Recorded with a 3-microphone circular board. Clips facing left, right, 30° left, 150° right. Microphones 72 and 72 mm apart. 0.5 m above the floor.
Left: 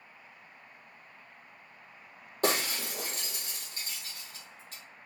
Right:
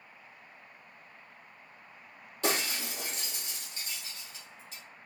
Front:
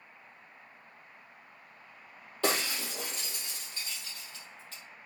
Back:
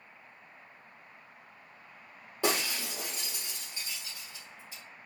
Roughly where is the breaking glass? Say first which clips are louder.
Left 2 dB, even; behind left.